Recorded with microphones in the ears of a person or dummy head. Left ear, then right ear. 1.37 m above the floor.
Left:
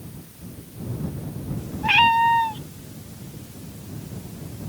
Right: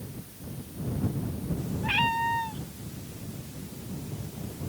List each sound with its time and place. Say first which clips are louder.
1.8 s a cat meowing: left 10 dB; 15° left (ahead or behind)